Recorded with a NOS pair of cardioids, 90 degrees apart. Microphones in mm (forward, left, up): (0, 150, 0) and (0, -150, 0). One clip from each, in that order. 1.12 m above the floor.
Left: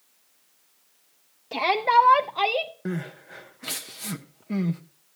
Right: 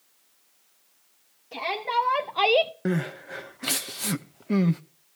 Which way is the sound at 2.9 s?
30° right.